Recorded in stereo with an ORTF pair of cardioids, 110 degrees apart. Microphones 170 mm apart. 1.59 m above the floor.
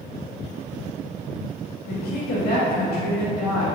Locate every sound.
1.9 s a woman speaking: 65° left, 1.1 m